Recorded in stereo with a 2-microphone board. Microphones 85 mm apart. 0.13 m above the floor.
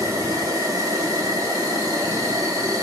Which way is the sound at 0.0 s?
55° right (ahead or behind).